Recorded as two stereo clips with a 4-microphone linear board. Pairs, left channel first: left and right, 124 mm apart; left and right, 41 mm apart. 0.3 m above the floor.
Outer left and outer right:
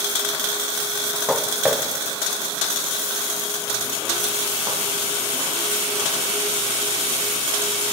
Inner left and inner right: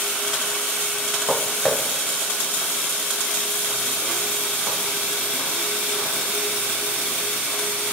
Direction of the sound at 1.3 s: 5° right (ahead or behind).